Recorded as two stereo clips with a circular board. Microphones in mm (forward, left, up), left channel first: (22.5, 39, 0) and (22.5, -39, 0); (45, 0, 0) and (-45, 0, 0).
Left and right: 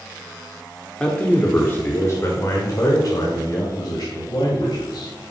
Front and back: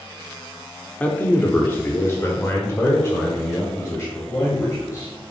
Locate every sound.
1.0 s a man speaking: 35° left, 1.3 m; by 5.1 s 55° left, 3.5 m